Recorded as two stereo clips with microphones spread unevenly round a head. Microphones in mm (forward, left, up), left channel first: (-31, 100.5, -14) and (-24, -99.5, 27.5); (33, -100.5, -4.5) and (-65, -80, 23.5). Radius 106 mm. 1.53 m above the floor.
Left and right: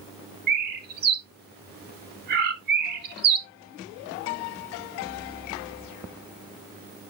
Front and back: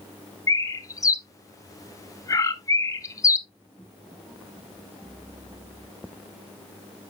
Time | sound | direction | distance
0.5 | a bird | 75° right | 1.1 m